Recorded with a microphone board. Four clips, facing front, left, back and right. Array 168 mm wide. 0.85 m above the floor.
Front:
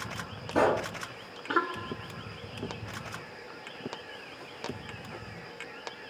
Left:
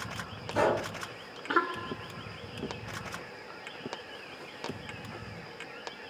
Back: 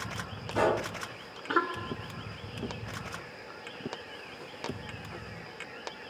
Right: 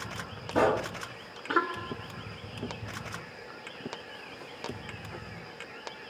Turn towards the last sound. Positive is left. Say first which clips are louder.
# right 2 dB, front 2 dB
turn(degrees=-40)